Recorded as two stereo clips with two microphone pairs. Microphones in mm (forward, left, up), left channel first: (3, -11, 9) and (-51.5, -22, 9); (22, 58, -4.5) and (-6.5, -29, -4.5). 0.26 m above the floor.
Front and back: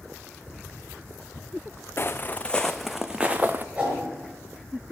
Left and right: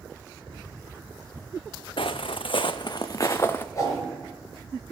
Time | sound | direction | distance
2.0 | footsteps | 60° left | 0.9 m
3.8 | a whoosh | 130° left | 5.5 m